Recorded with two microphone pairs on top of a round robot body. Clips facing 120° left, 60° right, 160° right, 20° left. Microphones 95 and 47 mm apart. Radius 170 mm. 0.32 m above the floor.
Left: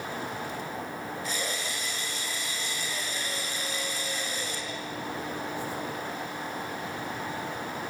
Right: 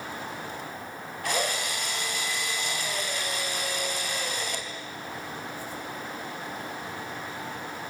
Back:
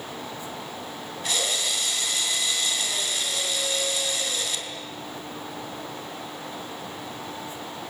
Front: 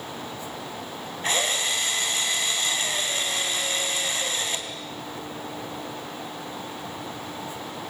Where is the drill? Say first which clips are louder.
Right 9 dB, front 3 dB; 35° right, 4 m.